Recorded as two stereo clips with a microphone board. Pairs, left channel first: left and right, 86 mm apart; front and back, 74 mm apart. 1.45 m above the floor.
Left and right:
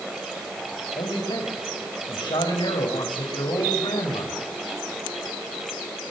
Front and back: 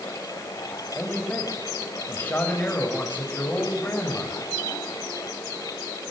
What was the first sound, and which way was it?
A man speaking, 65° left.